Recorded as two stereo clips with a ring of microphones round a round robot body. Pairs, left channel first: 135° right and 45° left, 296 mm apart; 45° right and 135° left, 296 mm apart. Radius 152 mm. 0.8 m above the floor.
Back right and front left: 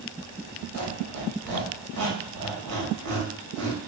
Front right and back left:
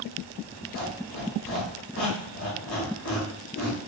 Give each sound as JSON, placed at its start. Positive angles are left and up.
{"t": 0.7, "sound": "a squeak", "azimuth_deg": 5, "distance_m": 1.6}